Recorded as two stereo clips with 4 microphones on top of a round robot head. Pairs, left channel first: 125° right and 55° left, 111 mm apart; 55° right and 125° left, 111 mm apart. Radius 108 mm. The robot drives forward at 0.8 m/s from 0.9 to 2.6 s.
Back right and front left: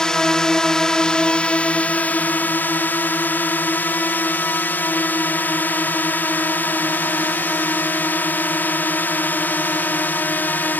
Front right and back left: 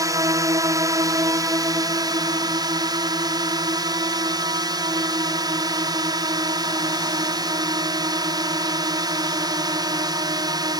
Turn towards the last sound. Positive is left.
turn(degrees=165)